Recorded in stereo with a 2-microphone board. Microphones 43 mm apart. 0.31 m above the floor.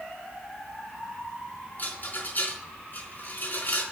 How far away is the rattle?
About 4 m.